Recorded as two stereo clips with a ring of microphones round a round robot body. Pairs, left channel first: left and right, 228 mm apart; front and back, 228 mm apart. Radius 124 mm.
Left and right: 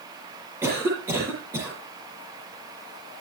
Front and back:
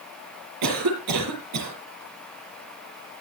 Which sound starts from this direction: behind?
A cough, at 0.6 s.